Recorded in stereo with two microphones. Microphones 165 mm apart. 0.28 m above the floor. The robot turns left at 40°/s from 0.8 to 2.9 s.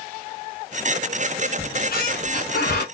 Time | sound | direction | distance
1.6 | a squeak | 125° left | 1.4 m